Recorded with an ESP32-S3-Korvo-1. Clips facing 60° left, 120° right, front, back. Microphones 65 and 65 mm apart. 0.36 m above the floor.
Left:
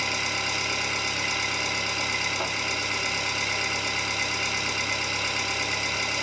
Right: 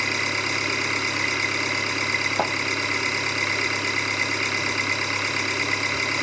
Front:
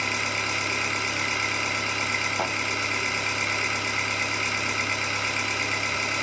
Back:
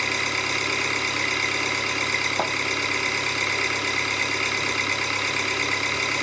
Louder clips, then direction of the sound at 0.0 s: Right 3 dB, back 2 dB; 150° right.